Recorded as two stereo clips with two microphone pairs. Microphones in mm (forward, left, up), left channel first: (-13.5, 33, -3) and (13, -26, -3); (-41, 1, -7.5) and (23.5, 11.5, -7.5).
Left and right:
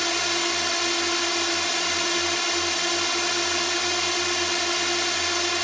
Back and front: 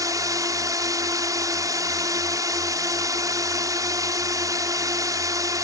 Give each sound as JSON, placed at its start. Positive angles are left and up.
{"t": 0.0, "sound": "a drone", "azimuth_deg": 25}